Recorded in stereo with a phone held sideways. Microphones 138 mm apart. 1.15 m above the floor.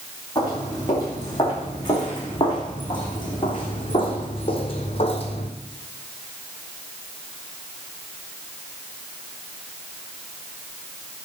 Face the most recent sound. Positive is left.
turn(degrees=50)  # may be behind; listen again after turning